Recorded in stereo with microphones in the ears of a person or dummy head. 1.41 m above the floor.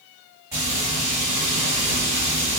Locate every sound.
0.5 s frying: 20° right (ahead or behind), 1.7 m